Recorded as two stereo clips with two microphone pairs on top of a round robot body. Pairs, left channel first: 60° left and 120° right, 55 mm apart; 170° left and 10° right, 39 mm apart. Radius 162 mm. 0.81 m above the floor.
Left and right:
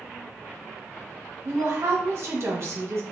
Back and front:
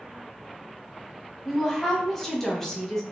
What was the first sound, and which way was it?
A woman speaking, 125° right.